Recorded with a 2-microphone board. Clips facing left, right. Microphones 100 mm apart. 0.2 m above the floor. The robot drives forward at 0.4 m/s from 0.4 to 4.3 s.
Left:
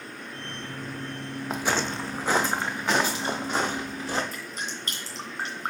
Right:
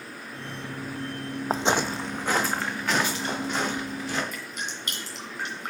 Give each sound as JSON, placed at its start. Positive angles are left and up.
{"t": 1.5, "sound": "footsteps", "side_deg": -40, "distance_m": 0.5}
{"t": 4.3, "sound": "dripping", "side_deg": 40, "distance_m": 2.0}